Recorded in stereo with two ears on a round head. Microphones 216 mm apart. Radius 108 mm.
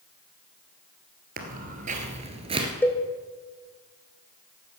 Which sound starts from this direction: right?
Footsteps, at 1.4 s.